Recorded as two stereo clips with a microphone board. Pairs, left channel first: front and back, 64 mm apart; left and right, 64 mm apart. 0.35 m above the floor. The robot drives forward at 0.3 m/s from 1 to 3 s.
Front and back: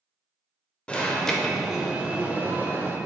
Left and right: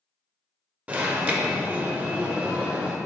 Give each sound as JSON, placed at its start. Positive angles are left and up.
{"t": 0.9, "sound": "an alarm", "azimuth_deg": -50, "distance_m": 0.6}